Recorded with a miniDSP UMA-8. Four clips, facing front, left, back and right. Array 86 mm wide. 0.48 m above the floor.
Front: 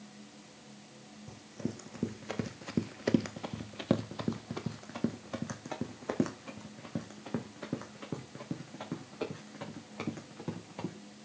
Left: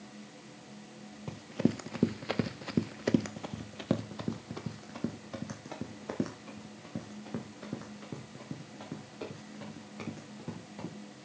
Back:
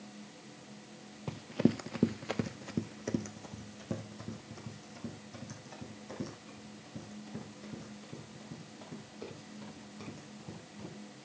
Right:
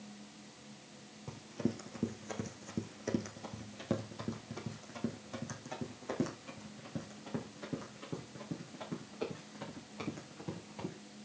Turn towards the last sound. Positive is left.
turn(degrees=10)